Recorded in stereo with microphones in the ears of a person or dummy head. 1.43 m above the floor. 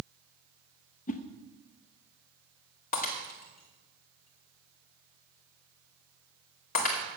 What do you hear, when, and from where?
1.1 s a whoosh: 40° left (ahead or behind), 0.6 m
2.9 s breaking glass: 45° left (ahead or behind), 1.6 m